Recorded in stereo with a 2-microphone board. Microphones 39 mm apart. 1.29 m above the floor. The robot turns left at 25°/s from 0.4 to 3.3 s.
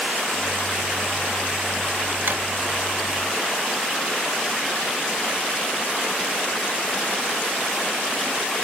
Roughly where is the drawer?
Right.